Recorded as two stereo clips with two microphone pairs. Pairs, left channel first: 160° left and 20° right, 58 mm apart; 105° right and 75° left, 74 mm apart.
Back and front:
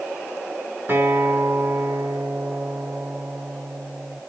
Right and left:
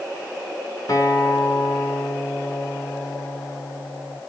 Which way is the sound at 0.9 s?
70° right.